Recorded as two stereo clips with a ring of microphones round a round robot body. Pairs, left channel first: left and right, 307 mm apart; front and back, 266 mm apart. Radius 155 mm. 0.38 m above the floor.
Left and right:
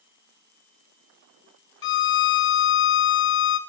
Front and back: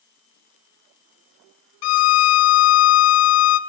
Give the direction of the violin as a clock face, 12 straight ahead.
11 o'clock.